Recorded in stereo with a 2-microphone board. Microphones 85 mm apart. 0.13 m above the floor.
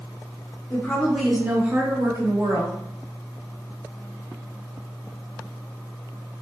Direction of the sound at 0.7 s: 25° left (ahead or behind).